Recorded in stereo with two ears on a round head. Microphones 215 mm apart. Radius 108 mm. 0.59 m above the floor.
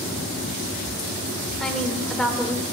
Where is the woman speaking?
5° left (ahead or behind), 2 m.